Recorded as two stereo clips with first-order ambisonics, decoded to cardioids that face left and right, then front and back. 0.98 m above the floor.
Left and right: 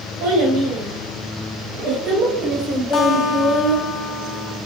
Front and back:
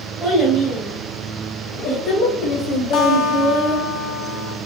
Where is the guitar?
35° left, 1.5 m.